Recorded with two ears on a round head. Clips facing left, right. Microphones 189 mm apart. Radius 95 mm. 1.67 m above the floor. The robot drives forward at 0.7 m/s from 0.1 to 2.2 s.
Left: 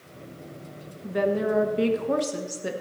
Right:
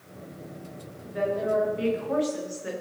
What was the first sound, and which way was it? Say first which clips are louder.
A woman speaking: left 3 dB; 75° left (ahead or behind).